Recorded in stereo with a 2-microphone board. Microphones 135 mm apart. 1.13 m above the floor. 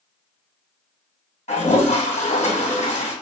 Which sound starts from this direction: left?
A toilet flushing, at 1.5 s.